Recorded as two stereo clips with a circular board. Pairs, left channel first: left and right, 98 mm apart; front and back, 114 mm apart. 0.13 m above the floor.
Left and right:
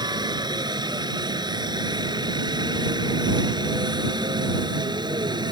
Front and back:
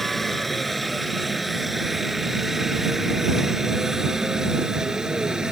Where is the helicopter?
90° right; by 5.5 s 100° right.